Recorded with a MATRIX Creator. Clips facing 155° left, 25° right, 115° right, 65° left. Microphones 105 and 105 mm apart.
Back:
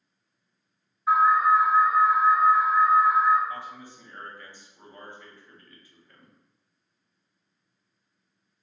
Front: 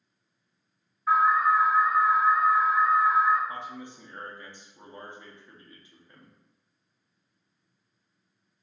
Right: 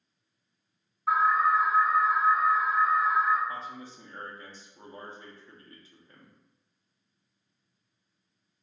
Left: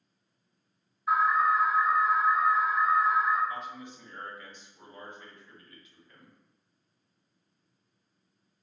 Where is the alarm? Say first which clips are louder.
Back 2 dB, right 1 dB; 125° right, 1.6 m.